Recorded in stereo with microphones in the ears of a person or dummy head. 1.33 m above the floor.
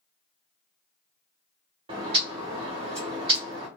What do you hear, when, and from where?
1.9 s a bird: 30° right (ahead or behind), 0.7 m